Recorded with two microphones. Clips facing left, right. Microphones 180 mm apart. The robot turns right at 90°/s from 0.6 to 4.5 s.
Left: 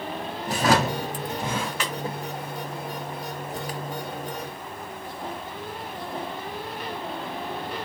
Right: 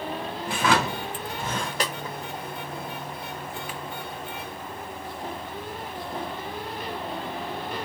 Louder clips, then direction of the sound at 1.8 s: Right 2 dB; 40° right (ahead or behind).